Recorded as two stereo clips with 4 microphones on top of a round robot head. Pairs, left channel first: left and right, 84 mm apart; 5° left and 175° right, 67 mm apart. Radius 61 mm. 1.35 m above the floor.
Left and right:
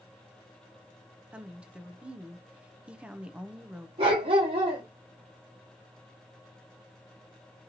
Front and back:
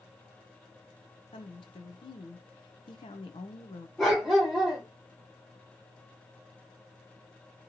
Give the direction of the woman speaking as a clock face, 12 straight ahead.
12 o'clock.